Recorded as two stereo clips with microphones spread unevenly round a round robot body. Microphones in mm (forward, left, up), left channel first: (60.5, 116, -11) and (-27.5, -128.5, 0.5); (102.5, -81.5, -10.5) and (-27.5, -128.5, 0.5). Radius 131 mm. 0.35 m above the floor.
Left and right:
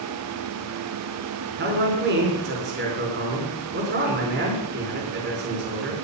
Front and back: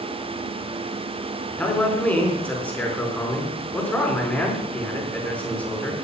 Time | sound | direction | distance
1.6 | a man speaking | 60° right | 5 m